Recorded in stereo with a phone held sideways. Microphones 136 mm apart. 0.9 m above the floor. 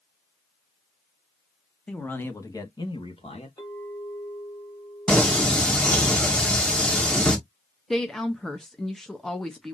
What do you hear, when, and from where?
1.9 s a man speaking: 10° left (ahead or behind), 1.2 m; by 3.5 s 50° left (ahead or behind), 1.2 m
3.6 s a clink: 30° left (ahead or behind), 2 m
5.1 s singing: 5° left (ahead or behind), 1.1 m
7.9 s a woman speaking: 5° left (ahead or behind), 0.7 m